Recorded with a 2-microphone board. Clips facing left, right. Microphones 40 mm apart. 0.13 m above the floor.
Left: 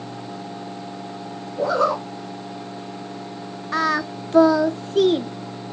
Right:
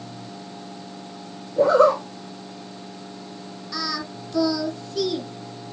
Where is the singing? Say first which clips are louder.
Left 9 dB; 45° left (ahead or behind), 0.5 m.